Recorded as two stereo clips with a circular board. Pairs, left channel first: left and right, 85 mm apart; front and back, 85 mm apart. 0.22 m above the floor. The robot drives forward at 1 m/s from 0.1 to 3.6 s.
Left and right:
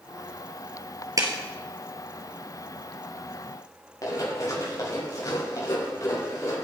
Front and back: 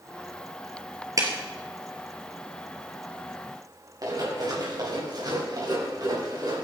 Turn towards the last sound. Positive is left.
turn(degrees=145)